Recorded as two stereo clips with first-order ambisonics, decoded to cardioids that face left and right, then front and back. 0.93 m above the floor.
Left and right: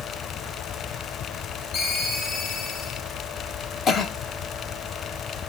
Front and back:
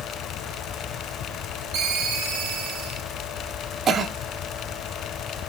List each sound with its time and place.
1.7 s a ringtone: 145° left, 3 m
3.9 s a cough: 125° left, 0.8 m